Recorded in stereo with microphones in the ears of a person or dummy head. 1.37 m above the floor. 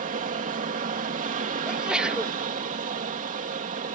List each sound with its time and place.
0.0 s an aircraft: 35° right (ahead or behind)
1.6 s a sneeze: 5° right (ahead or behind)